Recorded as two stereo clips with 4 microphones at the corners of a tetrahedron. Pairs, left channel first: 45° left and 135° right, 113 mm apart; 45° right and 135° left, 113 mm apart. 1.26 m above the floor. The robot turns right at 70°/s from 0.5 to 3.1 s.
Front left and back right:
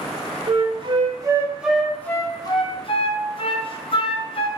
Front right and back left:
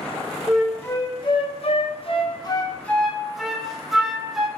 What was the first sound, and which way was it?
A flute, 135° right.